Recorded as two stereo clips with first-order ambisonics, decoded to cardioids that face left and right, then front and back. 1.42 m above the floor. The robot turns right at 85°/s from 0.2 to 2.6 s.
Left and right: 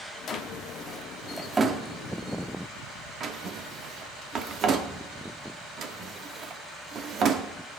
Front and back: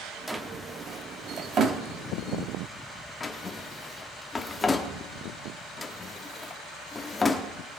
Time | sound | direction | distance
0.3 | a drawer | 95° left | 1.0 m